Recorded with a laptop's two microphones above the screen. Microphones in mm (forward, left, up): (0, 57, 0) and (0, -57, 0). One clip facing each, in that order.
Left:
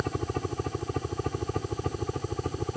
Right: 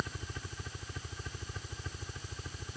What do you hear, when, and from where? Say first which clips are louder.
0.0 s a helicopter: left 11 dB; 65° left (ahead or behind)